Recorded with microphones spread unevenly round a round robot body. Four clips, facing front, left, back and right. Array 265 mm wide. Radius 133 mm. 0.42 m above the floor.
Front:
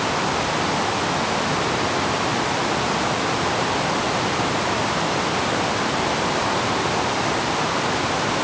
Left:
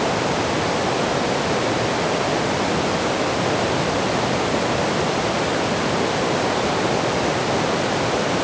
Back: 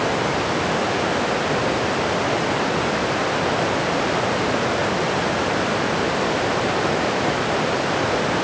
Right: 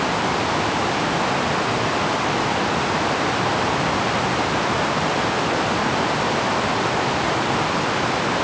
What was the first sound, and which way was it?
Only background noise.